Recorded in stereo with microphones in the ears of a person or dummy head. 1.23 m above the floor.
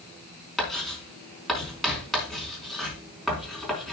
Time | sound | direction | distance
0.6 | writing | centre (ahead or behind) | 4.5 m